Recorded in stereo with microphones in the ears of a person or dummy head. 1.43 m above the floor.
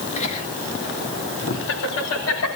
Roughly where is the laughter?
Left.